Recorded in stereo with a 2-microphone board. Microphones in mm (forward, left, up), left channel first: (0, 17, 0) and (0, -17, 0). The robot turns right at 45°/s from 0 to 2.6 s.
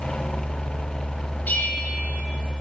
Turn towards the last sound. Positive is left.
turn(degrees=155)